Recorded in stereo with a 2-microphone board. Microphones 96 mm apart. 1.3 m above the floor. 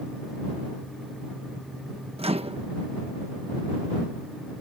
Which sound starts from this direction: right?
A microwave, at 2.2 s.